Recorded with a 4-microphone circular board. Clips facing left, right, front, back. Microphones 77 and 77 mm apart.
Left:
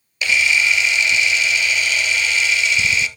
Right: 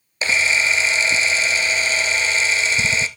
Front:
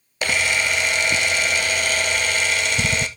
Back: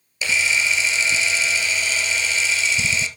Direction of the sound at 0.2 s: 30° right.